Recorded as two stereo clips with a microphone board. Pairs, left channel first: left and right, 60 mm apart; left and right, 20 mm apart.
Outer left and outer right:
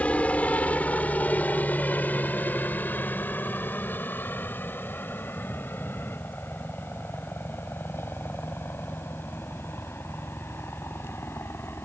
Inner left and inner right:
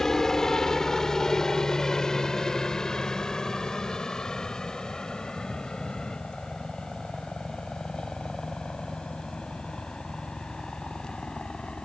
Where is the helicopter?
25° left (ahead or behind); by 11.8 s 45° left (ahead or behind).